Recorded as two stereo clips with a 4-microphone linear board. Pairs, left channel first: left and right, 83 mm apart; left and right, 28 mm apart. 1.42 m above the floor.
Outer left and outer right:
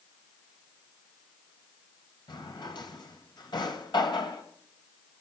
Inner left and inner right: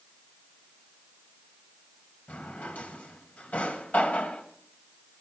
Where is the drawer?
70° left (ahead or behind), 2.5 m.